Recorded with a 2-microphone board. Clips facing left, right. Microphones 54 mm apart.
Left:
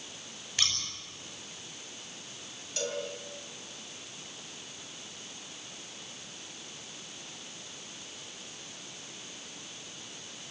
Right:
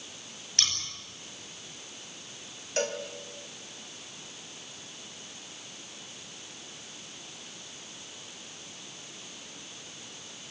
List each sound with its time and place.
0.6 s scissors: 10° left (ahead or behind), 6.5 m
2.8 s a cowbell: 50° right (ahead or behind), 3 m